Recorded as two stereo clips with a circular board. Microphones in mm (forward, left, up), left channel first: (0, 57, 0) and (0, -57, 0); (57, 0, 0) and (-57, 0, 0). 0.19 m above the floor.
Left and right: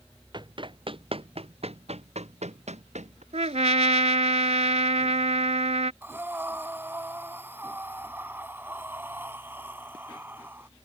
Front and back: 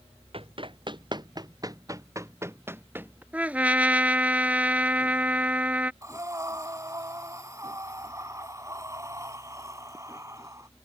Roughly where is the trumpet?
Right.